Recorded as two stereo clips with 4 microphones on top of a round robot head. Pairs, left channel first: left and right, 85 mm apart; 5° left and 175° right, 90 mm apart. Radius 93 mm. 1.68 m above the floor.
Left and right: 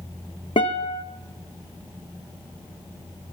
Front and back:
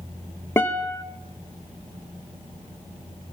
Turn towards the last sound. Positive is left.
turn(degrees=70)